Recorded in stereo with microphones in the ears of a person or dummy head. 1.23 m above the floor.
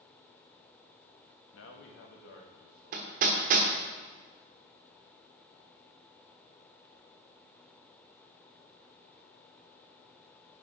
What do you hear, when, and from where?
1.5 s a man speaking: 85° left, 1.4 m; by 3.9 s 65° left (ahead or behind), 3 m
2.9 s hammering: 45° right (ahead or behind), 1.1 m